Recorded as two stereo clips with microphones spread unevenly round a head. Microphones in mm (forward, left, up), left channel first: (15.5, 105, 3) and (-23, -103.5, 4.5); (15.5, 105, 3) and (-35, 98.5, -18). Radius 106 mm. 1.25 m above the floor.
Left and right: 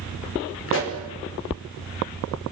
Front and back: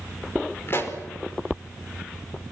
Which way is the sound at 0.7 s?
50° left.